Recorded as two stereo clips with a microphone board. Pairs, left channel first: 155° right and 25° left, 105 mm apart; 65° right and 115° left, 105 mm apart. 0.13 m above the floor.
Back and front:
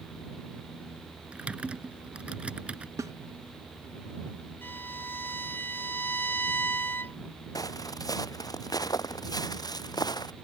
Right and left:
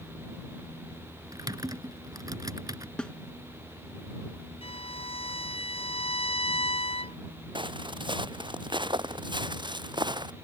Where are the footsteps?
150° left; by 10.3 s 155° left.